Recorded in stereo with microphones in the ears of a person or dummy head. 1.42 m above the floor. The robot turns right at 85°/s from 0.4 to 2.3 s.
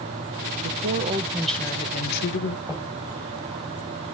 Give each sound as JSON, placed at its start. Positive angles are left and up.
{"t": 0.6, "sound": "a woman speaking", "azimuth_deg": -70, "distance_m": 1.4}
{"t": 2.7, "sound": "knocking", "side_deg": 20, "distance_m": 5.0}